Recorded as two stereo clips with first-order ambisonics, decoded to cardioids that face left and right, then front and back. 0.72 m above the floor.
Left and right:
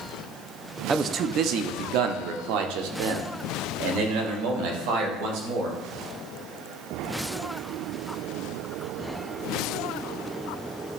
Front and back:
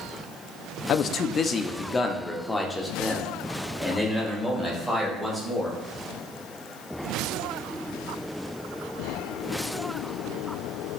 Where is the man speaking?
20° right, 0.5 m; by 5.7 s 95° right, 3.5 m.